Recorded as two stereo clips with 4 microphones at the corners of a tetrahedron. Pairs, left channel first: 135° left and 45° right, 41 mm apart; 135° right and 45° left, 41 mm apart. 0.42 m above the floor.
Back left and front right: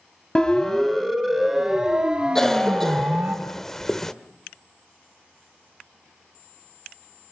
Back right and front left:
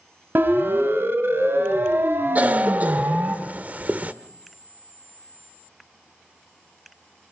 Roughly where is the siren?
Ahead left.